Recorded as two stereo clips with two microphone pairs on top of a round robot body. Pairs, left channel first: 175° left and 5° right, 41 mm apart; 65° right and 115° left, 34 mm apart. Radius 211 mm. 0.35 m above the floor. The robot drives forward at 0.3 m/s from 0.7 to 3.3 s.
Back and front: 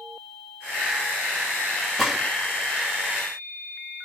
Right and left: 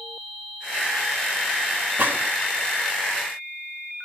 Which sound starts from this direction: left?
A gunshot, at 2.0 s.